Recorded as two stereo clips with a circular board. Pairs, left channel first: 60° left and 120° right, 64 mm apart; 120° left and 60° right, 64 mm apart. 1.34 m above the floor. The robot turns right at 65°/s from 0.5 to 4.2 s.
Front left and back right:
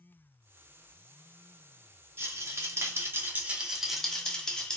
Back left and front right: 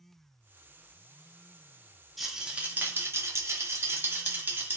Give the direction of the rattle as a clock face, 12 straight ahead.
5 o'clock.